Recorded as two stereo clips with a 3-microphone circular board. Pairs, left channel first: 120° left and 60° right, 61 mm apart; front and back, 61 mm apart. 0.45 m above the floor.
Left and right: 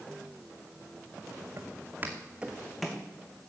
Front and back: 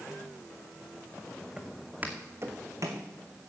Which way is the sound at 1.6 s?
105° right.